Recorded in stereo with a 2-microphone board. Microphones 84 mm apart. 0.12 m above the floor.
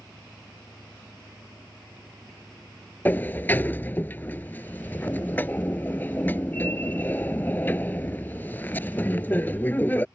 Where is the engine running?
45° right (ahead or behind).